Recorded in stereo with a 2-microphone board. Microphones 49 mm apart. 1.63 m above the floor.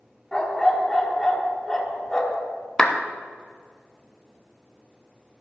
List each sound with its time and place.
0.3 s a dog barking: 10° left (ahead or behind), 1.4 m
2.8 s a clap: 15° left (ahead or behind), 0.7 m